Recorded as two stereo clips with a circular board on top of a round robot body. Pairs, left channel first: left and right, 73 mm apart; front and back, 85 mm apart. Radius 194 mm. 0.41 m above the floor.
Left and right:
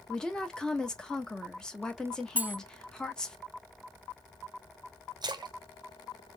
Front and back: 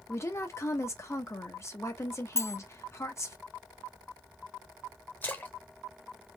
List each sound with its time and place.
0.1 s a woman speaking: 15° left, 1.0 m
2.4 s cutlery clinking: 35° right, 0.5 m
5.2 s a splash: 65° right, 0.5 m